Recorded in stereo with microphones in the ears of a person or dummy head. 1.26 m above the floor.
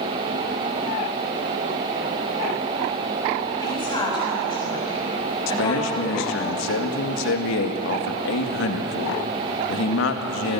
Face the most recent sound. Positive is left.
turn(degrees=70)  # may be behind; listen again after turning